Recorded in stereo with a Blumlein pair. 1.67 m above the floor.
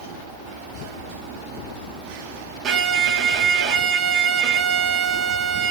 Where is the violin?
30° right, 0.6 m.